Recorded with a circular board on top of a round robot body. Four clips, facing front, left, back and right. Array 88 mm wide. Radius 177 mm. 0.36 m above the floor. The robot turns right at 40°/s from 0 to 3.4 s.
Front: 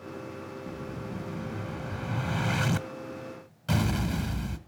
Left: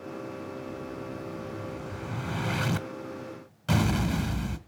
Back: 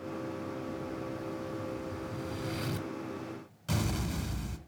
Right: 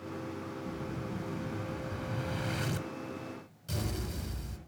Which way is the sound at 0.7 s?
35° right.